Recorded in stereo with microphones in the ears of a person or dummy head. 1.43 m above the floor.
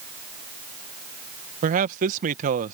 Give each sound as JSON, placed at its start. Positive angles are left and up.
{"t": 1.6, "sound": "a man speaking", "side_deg": -45}